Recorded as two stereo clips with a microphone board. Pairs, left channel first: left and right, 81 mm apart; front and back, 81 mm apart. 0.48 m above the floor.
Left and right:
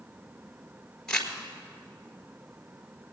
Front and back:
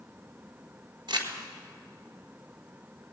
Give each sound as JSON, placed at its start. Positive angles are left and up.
{"t": 1.1, "sound": "crumpling", "azimuth_deg": 175, "distance_m": 1.5}